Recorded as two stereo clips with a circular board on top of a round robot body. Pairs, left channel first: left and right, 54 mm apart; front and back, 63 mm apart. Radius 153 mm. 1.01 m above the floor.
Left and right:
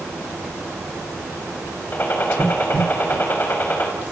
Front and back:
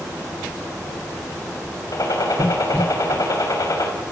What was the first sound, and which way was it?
A gunshot, 35° left.